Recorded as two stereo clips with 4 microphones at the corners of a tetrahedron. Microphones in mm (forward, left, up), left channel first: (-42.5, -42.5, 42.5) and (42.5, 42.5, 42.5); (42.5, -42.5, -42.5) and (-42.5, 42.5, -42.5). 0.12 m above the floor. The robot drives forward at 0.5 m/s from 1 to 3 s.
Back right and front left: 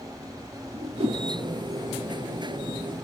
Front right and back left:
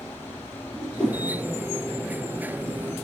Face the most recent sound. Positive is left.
turn(degrees=150)